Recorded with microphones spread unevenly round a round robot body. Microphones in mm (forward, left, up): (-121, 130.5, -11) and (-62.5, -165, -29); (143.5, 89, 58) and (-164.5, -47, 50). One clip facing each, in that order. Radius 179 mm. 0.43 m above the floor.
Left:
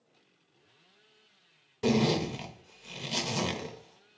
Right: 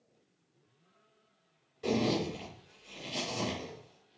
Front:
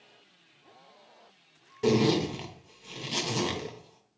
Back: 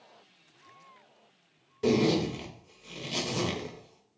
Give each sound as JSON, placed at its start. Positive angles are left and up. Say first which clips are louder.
{"t": 1.8, "sound": "a zipper", "louder": "left 4 dB, front 1 dB", "azimuth_deg": 105, "distance_m": 0.8}